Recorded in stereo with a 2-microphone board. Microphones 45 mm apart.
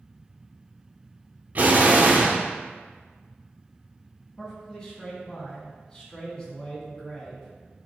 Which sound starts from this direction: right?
An explosion, at 1.6 s.